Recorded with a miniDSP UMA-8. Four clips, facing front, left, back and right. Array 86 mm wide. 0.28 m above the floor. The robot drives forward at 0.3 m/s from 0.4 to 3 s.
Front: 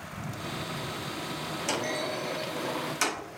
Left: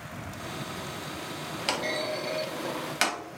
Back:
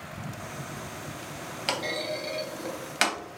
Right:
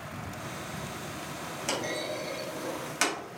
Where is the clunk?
135° left, 0.9 m; by 3.2 s 155° left, 1.1 m.